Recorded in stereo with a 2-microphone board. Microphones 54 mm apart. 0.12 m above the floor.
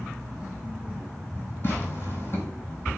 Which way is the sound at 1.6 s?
40° left (ahead or behind).